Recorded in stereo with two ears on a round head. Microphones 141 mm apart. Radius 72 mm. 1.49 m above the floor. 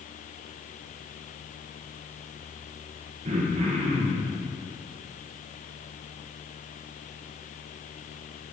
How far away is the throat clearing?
About 1.6 m.